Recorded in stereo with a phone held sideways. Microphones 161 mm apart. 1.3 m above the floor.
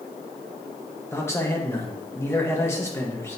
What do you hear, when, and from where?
1.1 s a man speaking: 15° left (ahead or behind), 1.6 m